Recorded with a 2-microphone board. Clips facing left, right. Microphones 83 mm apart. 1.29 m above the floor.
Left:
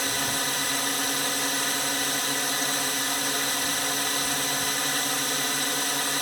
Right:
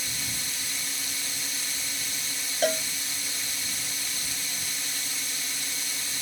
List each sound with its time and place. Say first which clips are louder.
0.0 s a drone: left 10 dB; 65° left (ahead or behind)
2.6 s a cowbell: right 4 dB; 70° right (ahead or behind)